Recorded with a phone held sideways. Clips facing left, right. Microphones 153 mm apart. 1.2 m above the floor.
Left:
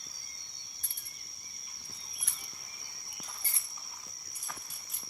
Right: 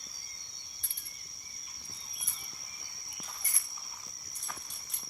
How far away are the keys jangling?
About 1.4 m.